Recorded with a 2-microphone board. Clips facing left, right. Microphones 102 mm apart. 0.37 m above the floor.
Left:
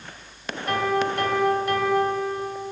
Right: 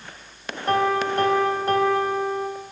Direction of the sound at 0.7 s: 35° right (ahead or behind).